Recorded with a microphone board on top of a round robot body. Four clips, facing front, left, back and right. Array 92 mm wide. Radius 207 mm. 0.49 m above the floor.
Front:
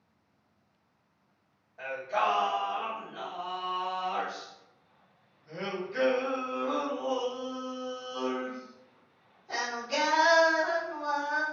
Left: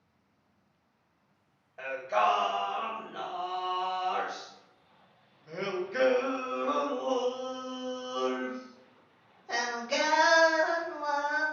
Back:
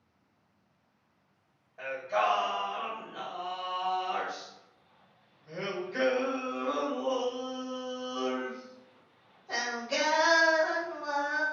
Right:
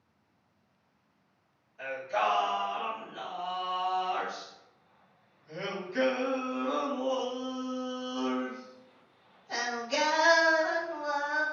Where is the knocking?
I don't hear knocking.